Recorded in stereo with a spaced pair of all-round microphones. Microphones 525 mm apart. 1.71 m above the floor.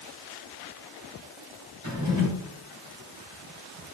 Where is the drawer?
65° right (ahead or behind), 3 m.